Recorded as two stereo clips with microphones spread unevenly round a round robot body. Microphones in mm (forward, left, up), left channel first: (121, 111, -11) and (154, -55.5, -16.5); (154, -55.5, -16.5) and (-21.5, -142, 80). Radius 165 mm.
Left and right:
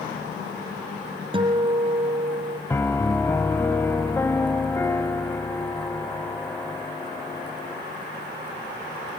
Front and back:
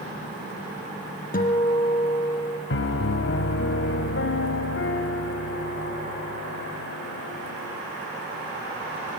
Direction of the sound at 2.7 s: 25° left.